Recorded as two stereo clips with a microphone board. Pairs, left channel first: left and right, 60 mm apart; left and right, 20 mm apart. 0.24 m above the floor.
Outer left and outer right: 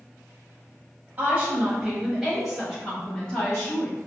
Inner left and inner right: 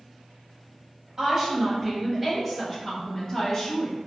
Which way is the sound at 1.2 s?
25° right (ahead or behind).